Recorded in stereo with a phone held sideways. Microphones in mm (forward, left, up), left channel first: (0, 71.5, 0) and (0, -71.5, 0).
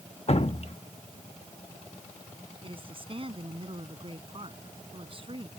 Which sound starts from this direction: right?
A woman speaking, at 2.6 s.